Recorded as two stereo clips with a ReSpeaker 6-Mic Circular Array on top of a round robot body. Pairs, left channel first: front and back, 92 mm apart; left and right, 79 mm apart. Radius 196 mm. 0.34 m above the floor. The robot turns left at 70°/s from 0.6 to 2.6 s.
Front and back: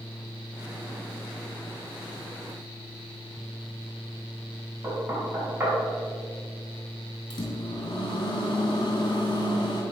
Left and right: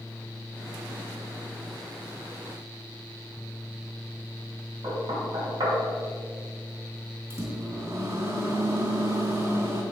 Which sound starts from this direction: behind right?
Knocking, at 4.8 s.